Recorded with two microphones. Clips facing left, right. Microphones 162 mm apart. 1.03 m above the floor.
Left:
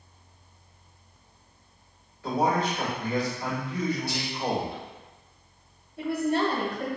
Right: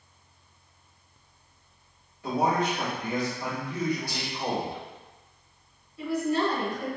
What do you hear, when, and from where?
2.2 s a man speaking: 20° right (ahead or behind), 2.0 m
4.1 s whispering: 50° right (ahead or behind), 1.7 m
6.0 s a woman speaking: 65° left (ahead or behind), 1.1 m